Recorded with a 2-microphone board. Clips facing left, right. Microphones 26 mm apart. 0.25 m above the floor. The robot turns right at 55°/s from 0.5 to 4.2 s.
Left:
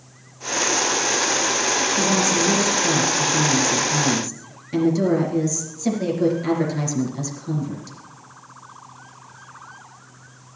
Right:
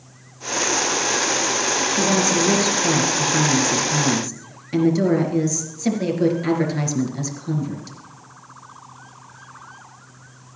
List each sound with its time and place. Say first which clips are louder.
2.0 s a woman speaking: right 2 dB; 150° right, 4 m; by 8.0 s 25° right, 4 m